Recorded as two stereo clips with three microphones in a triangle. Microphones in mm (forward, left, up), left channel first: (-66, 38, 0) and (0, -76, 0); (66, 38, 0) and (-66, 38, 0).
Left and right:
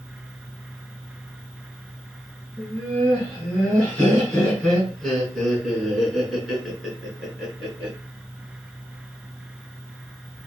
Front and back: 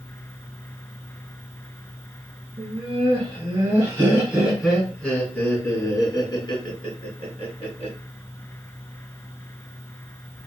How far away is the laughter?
About 1.9 m.